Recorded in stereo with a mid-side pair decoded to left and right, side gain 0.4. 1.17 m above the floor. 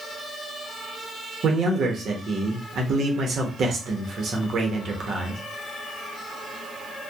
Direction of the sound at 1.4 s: 60° right.